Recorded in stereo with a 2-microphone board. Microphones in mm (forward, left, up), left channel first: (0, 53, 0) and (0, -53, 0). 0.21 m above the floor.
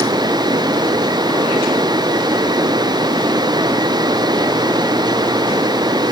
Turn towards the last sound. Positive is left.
No sound to turn to.